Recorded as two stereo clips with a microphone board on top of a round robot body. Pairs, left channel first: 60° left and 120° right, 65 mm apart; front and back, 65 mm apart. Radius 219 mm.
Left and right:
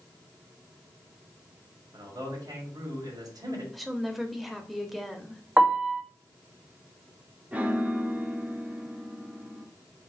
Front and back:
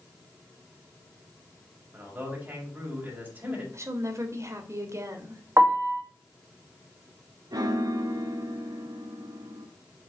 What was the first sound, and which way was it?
A man speaking, 125° right.